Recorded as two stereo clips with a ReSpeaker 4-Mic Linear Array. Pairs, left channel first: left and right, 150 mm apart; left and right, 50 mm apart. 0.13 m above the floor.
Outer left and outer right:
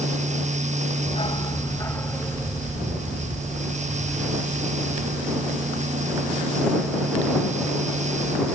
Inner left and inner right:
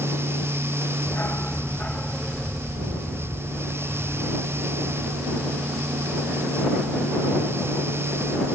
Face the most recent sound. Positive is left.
turn(degrees=-15)  # may be behind; listen again after turning